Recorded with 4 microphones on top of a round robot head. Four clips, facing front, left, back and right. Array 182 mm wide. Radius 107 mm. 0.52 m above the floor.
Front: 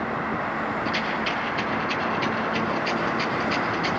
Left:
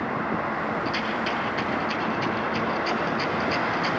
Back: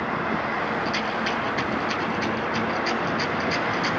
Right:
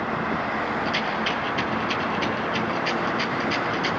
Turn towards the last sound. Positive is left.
turn(degrees=-145)